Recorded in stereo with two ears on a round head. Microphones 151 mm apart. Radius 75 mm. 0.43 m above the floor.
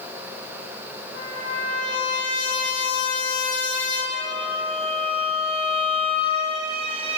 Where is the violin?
35° right (ahead or behind), 3 m.